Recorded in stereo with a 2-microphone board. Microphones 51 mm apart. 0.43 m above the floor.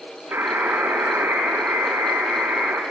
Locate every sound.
0.3 s a buzzer: 50° right (ahead or behind), 5 m